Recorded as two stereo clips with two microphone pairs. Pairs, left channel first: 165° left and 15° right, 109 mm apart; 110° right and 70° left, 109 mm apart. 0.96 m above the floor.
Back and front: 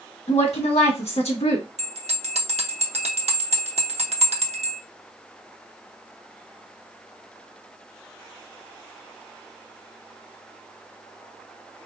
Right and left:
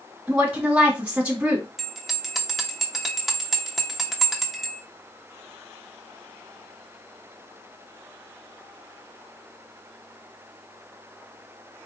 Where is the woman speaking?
150° left, 1.4 m.